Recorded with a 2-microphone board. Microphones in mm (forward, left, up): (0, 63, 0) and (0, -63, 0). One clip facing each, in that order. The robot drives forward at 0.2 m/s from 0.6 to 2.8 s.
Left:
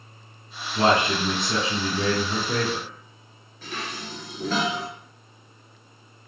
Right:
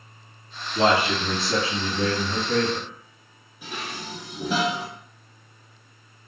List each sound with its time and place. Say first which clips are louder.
0.8 s a man speaking: even; 20° left (ahead or behind), 1.6 m
3.6 s dishes clattering: even; 15° right (ahead or behind), 1.0 m